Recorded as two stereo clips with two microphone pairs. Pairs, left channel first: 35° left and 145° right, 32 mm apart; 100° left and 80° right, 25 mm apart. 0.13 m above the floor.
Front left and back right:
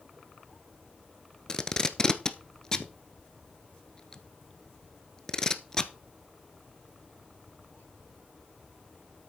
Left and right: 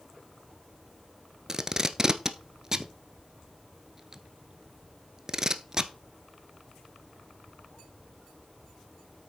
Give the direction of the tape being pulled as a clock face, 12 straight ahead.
1 o'clock.